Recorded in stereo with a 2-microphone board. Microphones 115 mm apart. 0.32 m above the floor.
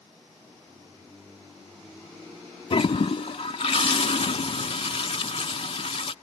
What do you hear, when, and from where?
2.7 s a toilet flushing: 55° left (ahead or behind)